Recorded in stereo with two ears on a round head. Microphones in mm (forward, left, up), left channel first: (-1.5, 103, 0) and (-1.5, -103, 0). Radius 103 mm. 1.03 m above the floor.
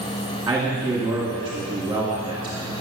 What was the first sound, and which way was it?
A man speaking, 10° right (ahead or behind).